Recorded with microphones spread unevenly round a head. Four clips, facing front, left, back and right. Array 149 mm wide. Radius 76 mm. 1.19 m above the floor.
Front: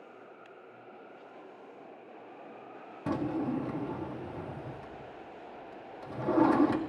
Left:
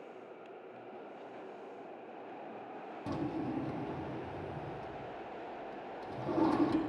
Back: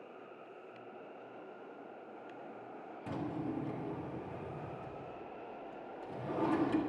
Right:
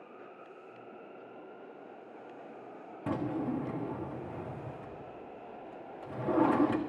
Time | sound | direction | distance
3.1 | a drawer | 30° right | 1.3 m